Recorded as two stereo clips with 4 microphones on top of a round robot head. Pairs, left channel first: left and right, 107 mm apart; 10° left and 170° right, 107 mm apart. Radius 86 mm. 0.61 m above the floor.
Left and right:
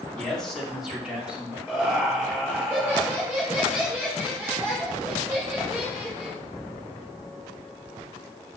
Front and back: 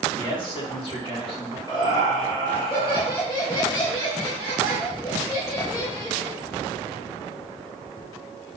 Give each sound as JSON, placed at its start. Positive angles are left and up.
{"t": 0.2, "sound": "a man speaking", "azimuth_deg": 15, "distance_m": 1.5}
{"t": 1.7, "sound": "laughter", "azimuth_deg": -25, "distance_m": 2.0}